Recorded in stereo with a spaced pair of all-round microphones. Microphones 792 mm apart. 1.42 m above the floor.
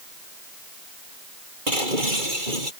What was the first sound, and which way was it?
Breaking glass, 85° right.